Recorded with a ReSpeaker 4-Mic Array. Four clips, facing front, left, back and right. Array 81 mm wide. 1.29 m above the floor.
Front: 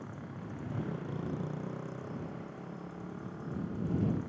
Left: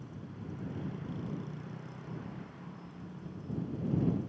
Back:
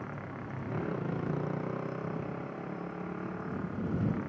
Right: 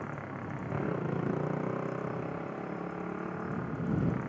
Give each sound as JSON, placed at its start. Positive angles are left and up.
{"t": 0.0, "sound": "a motorcycle", "azimuth_deg": -115}